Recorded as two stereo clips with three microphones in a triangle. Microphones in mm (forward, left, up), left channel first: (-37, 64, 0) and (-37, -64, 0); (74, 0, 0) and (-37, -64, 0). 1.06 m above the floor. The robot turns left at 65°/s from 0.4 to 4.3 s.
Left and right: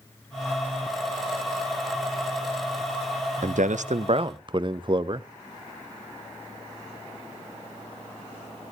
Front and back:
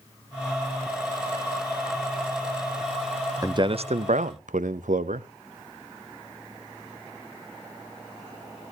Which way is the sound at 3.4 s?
85° right.